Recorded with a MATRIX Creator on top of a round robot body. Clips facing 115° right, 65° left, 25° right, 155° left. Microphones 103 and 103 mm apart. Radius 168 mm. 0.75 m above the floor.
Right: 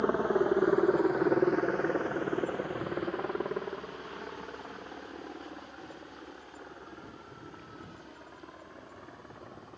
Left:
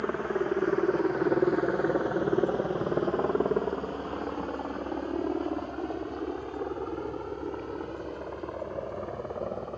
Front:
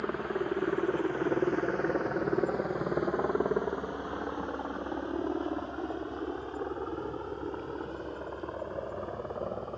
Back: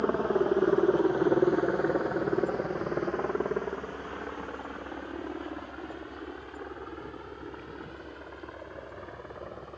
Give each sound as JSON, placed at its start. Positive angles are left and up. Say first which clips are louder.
{"t": 0.0, "sound": "a helicopter", "louder": "right 2 dB, back 6 dB", "azimuth_deg": -170}